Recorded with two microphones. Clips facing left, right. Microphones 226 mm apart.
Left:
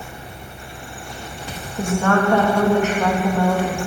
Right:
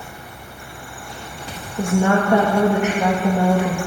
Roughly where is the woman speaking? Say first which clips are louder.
Right 1 dB; centre.